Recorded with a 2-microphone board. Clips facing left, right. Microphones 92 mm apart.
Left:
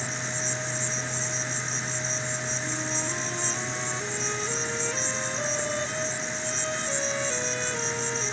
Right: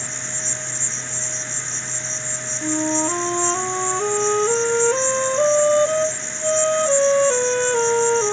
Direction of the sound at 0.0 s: 5° left (ahead or behind).